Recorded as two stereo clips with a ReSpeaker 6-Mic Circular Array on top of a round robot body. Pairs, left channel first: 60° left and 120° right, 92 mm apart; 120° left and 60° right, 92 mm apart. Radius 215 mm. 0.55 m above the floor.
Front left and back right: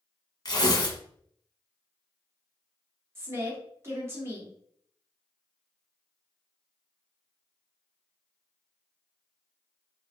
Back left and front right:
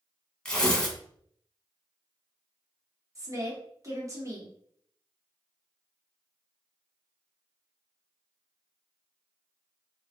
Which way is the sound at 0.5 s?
45° left.